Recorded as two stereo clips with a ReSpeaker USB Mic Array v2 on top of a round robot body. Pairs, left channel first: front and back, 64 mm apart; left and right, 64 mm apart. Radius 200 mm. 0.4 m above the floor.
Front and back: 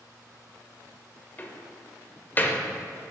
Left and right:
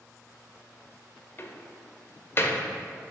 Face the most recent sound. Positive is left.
turn(degrees=50)